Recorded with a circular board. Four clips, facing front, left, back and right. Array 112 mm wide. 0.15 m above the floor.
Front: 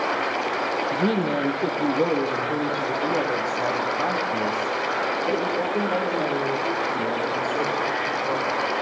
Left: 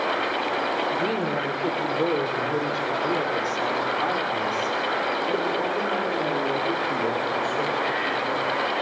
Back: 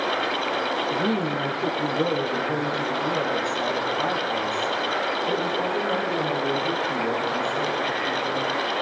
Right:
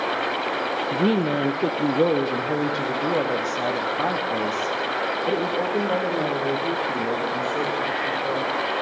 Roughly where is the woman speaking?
Right.